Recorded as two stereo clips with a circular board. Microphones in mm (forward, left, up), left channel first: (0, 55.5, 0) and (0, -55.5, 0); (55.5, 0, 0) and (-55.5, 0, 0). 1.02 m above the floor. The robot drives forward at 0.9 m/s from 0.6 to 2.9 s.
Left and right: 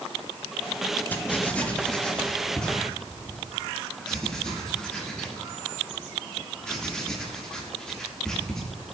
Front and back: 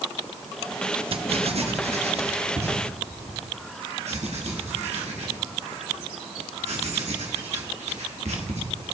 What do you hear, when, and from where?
1.1 s writing: 160° left, 0.9 m; by 8.6 s 175° left, 2.5 m